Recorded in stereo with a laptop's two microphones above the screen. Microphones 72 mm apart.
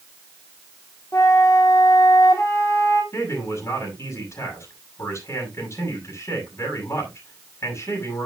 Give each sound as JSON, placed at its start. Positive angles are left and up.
{"t": 1.1, "sound": "a flute", "side_deg": 50, "distance_m": 3.0}
{"t": 3.1, "sound": "a man speaking", "side_deg": 40, "distance_m": 6.5}